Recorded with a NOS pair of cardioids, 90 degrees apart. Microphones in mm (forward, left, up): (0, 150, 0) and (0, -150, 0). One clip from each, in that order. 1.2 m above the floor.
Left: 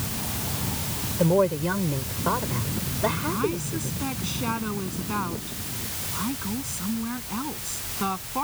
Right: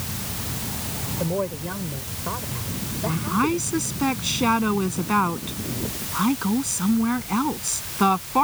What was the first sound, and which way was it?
A woman speaking, 40° left.